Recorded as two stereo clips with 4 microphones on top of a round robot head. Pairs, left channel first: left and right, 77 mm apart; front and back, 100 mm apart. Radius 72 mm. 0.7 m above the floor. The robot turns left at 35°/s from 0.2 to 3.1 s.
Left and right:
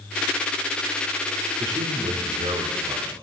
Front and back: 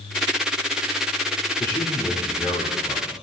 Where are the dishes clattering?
No dishes clattering in this recording.